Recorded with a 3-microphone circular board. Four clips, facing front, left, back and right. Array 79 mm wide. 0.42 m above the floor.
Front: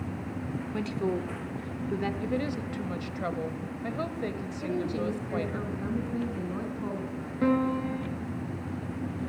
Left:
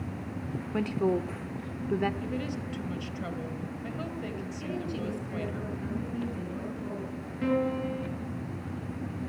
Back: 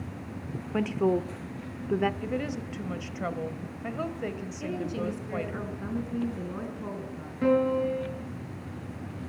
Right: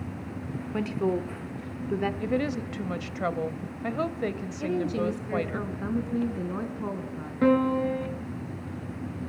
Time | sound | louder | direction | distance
0.7 | a woman speaking | even, back 5 dB | straight behind | 0.8 m
2.2 | a woman speaking | right 6 dB, front 1 dB | 90° right | 1.7 m
4.6 | a woman speaking | right 8 dB, front 2 dB | 85° right | 5 m
7.4 | a piano | right 6 dB, back 2 dB | 75° right | 5.5 m